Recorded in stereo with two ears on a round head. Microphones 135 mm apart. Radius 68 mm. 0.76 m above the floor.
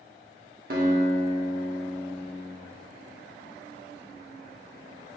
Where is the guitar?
65° right (ahead or behind), 1.6 m.